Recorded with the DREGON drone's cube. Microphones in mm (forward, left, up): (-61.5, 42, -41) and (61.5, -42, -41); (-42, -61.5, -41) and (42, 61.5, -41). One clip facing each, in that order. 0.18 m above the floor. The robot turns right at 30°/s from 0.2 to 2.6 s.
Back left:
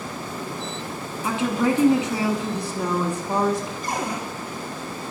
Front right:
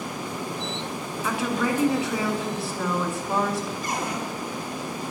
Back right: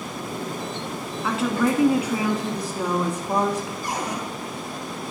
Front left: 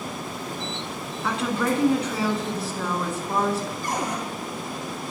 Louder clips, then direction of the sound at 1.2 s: Back left 4 dB, back right 3 dB; 150° left.